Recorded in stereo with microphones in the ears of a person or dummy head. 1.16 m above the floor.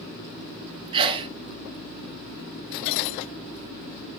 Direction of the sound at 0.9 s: 30° right (ahead or behind).